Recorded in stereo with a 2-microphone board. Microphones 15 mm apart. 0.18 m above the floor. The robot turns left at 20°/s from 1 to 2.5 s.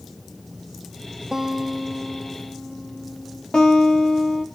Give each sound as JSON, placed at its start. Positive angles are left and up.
{"t": 1.3, "sound": "a guitar", "side_deg": -35, "distance_m": 2.5}
{"t": 3.5, "sound": "a guitar", "side_deg": 60, "distance_m": 4.5}